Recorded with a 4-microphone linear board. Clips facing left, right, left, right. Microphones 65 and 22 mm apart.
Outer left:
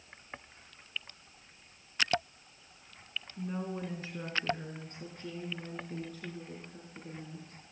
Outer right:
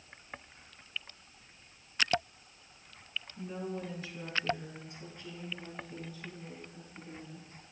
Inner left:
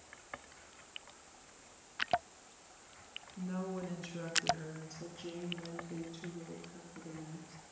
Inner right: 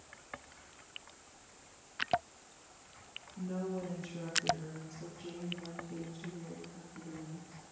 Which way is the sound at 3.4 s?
20° left (ahead or behind).